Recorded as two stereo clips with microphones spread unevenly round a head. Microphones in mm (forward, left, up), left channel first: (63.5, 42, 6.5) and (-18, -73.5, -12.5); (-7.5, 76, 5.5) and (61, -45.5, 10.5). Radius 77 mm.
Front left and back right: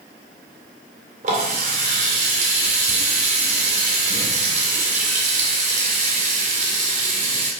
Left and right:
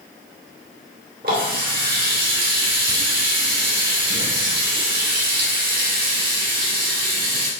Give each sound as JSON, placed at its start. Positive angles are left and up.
{"t": 1.2, "sound": "a running tap", "azimuth_deg": -95, "distance_m": 2.0}